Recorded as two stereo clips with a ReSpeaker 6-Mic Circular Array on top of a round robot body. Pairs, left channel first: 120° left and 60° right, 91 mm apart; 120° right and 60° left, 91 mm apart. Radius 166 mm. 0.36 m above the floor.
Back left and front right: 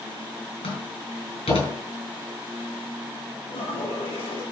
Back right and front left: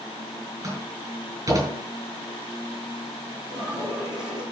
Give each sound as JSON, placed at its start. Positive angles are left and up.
{"t": 0.6, "sound": "a door slam", "azimuth_deg": 115, "distance_m": 7.5}
{"t": 3.5, "sound": "a toilet flushing", "azimuth_deg": 140, "distance_m": 6.5}